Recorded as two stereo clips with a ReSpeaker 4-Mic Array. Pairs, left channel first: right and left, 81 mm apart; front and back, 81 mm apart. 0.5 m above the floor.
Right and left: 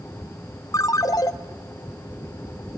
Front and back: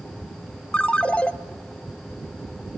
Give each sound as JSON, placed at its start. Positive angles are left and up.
{"t": 0.7, "sound": "a ringtone", "azimuth_deg": -70, "distance_m": 0.7}